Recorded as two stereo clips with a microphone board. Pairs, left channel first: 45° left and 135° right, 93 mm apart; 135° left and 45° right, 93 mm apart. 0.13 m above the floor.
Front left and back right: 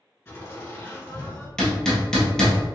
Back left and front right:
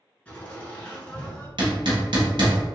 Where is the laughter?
75° left, 1.9 m.